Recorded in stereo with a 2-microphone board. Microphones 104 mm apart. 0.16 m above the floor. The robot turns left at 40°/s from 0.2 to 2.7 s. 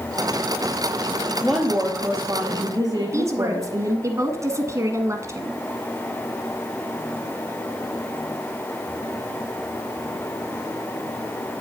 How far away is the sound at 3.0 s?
About 1.3 m.